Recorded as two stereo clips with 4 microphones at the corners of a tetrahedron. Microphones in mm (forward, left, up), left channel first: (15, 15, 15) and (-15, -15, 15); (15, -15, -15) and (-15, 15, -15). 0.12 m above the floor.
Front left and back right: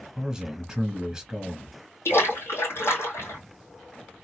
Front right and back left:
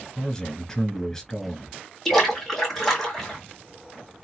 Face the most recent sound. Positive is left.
turn(degrees=40)